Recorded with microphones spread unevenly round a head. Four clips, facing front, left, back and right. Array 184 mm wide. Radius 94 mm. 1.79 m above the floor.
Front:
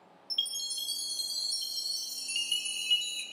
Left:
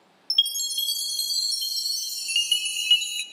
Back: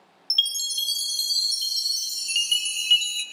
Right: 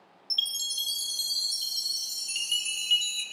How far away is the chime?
About 0.8 m.